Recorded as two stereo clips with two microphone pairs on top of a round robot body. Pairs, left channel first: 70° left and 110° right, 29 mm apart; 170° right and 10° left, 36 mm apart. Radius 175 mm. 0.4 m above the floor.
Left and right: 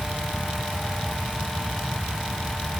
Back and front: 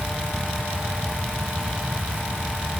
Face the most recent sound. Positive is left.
No sound to turn to.